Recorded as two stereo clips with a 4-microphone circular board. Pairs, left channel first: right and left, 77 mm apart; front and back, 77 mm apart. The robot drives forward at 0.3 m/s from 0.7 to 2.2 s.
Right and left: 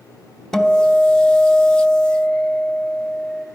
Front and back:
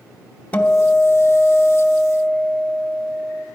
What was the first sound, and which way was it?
A guitar, 15° right.